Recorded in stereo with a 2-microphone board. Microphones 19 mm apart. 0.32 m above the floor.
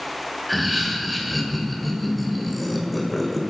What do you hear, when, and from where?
0.5 s laughter: centre (ahead or behind), 1.4 m